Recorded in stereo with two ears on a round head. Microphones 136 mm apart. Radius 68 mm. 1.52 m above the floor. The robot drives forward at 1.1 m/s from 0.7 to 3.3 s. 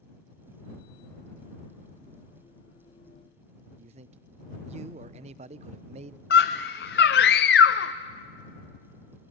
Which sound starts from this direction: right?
A man speaking, at 3.8 s.